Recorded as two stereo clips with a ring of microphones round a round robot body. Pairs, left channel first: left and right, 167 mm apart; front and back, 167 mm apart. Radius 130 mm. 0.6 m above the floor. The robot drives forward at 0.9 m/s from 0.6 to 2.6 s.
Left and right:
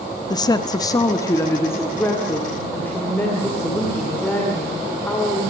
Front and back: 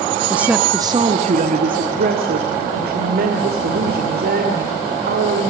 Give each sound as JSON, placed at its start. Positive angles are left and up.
{"t": 0.3, "sound": "a woman speaking", "azimuth_deg": 110, "distance_m": 0.8}